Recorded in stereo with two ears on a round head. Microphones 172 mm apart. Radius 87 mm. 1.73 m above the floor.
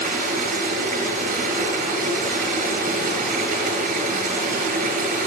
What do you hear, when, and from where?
0.0 s running water: 45° right (ahead or behind), 5 m